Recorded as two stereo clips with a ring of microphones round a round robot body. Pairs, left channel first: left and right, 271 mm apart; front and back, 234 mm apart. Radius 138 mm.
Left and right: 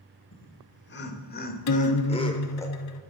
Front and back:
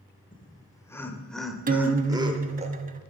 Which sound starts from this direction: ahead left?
Laughter, at 0.3 s.